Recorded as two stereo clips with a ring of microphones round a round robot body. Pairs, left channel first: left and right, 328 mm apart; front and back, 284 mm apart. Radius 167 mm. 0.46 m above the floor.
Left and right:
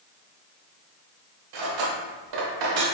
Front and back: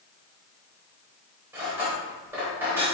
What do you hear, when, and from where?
1.5 s cutlery clinking: 95° right, 1.0 m